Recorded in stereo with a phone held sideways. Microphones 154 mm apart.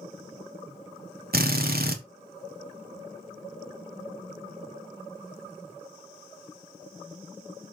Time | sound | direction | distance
1.3 | a drill | 80° right | 1.4 m